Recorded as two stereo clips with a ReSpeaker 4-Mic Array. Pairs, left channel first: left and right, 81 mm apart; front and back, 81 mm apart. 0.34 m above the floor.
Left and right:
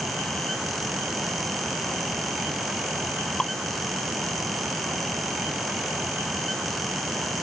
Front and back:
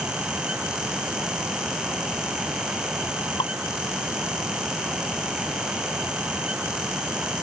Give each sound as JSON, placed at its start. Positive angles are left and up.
{"t": 3.4, "sound": "dripping", "azimuth_deg": 10}